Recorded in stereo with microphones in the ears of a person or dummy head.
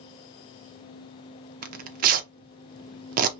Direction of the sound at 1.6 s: 50° right (ahead or behind).